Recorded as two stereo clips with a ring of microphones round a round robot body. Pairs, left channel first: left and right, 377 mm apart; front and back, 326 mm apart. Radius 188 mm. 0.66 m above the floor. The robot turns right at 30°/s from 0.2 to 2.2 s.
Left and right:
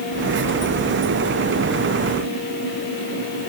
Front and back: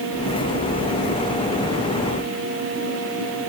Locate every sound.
Only background noise.